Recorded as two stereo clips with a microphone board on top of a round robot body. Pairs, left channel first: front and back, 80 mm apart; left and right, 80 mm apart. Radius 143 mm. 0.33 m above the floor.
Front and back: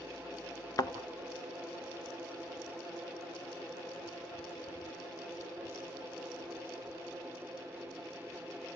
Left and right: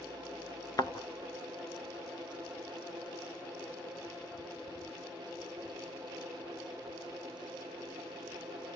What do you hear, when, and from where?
0.8 s a thud: 45° left, 1.6 m